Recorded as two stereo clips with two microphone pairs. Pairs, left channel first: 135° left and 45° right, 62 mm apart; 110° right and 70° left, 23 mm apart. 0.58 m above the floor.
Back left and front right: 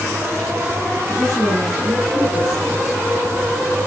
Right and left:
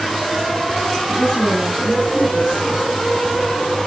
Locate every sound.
1.1 s a woman speaking: 25° right, 8.5 m